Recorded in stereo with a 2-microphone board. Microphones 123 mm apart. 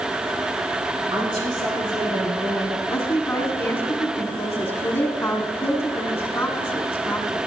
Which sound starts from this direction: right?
A woman speaking, at 1.1 s.